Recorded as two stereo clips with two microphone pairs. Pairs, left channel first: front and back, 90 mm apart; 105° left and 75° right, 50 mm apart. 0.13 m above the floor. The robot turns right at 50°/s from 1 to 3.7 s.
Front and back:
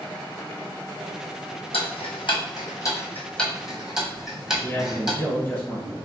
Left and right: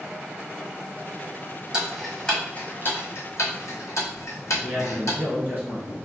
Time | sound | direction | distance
1.7 | ticking | straight ahead | 1.0 m
4.5 | a man speaking | 55° right | 1.9 m